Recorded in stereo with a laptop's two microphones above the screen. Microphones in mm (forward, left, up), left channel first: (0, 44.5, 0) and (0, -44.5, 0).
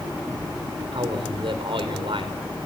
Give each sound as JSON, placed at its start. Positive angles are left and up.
{"t": 0.9, "sound": "a man speaking", "side_deg": -70, "distance_m": 3.5}